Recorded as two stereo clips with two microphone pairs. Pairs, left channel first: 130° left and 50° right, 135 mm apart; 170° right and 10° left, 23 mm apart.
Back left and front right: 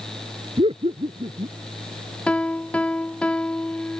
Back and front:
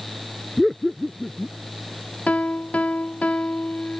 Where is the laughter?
75° right.